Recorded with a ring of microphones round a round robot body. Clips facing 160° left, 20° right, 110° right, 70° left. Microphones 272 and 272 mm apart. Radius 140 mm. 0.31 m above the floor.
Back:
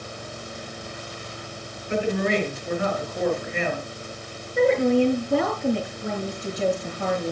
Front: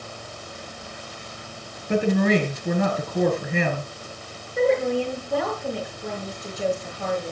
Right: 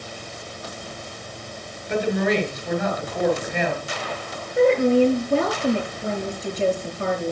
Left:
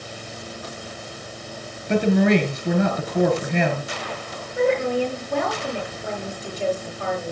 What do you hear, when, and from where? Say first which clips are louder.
1.9 s a woman speaking: front 4 dB, left 4 dB; 25° left, 5 m
4.6 s a woman speaking: back 3 dB, right 5 dB; straight behind, 6 m